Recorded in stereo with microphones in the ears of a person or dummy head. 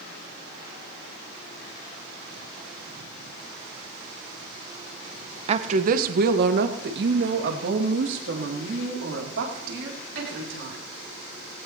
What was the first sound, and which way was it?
A woman speaking, 40° right (ahead or behind).